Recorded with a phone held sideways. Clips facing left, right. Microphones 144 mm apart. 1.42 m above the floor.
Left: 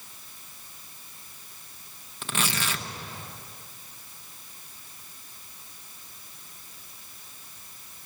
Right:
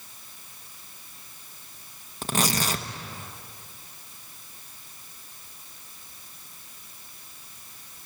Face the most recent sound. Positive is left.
turn(degrees=-35)  # may be behind; listen again after turning